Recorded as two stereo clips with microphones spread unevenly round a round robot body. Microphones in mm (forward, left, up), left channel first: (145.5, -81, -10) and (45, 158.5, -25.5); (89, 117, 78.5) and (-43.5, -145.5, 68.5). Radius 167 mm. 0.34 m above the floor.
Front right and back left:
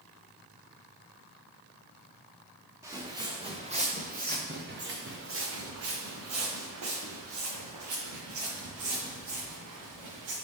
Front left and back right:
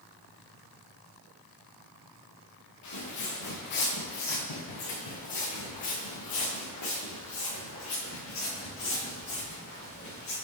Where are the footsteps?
35° left, 3 m; by 10.3 s 120° left, 5 m.